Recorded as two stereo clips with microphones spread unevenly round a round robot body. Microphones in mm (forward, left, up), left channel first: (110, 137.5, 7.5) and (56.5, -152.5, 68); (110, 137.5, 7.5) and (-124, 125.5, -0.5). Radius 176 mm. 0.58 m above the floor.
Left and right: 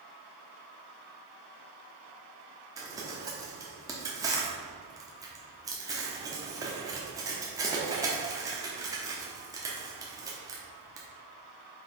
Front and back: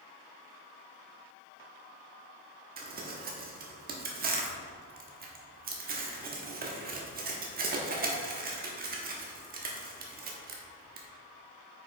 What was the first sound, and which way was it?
Crumpling, 170° left.